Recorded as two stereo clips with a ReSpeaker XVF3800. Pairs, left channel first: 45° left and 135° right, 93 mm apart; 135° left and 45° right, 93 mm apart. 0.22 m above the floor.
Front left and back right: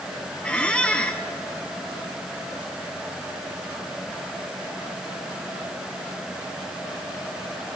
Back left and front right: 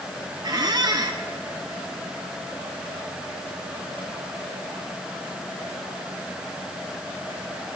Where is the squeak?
30° right, 1.1 m.